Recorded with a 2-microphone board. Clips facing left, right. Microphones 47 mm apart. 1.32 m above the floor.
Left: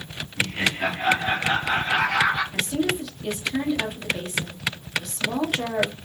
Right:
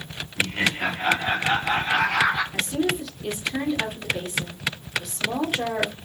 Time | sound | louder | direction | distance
0.4 | laughter | even | 10° right (ahead or behind) | 1.6 m
2.5 | a woman speaking | even | 5° right (ahead or behind) | 1.6 m